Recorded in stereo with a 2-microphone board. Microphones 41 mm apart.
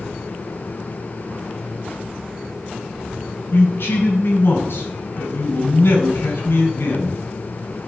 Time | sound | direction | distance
3.5 | a man speaking | 65° left (ahead or behind) | 4 m